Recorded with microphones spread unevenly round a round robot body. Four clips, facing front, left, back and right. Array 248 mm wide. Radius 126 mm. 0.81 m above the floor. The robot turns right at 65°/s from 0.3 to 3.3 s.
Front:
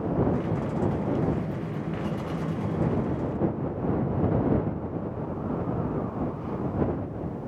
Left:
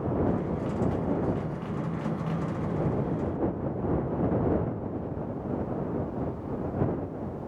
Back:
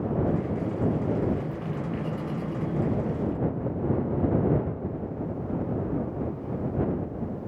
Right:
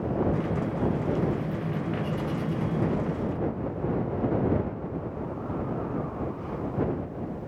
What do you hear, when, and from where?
Only background noise.